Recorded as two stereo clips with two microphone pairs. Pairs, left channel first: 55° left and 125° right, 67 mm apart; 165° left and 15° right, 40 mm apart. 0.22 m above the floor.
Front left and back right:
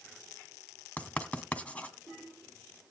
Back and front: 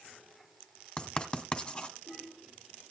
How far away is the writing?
About 1.6 m.